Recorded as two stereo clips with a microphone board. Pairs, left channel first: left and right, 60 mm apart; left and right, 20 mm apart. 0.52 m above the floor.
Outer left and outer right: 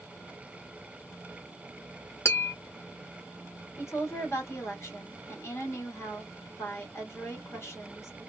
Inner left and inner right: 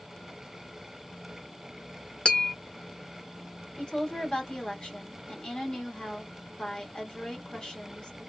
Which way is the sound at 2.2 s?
50° left (ahead or behind).